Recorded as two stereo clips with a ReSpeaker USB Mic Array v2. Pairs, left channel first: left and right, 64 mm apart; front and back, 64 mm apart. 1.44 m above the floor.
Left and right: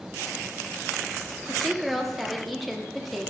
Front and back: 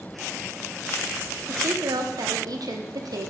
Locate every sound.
1.5 s a woman speaking: straight behind, 0.7 m